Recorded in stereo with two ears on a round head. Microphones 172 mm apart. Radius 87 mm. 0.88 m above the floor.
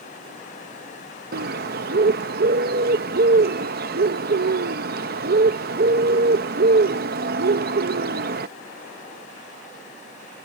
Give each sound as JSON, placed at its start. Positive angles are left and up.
{"t": 1.3, "sound": "a bird", "side_deg": -50}